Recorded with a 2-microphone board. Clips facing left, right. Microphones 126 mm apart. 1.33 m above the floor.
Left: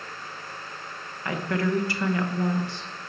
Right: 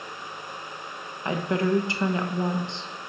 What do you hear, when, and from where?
1.2 s a woman speaking: 20° right (ahead or behind), 1.1 m